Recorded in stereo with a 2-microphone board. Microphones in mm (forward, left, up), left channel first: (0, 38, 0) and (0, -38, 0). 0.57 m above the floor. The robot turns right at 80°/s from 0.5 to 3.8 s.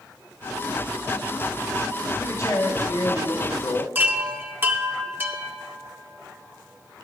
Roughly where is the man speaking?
Ahead left.